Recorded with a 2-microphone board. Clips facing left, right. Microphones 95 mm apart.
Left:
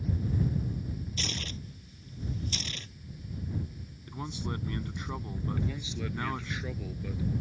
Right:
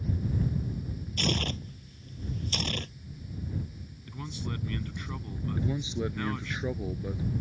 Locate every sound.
1.2 s tearing paper: 55° right (ahead or behind)
4.1 s a man speaking: 20° left (ahead or behind)
5.6 s a man speaking: 25° right (ahead or behind)